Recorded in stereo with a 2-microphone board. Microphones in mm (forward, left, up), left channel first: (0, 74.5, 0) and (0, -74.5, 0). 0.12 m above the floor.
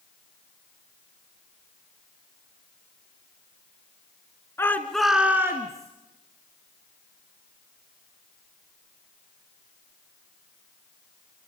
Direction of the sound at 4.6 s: 15° left (ahead or behind).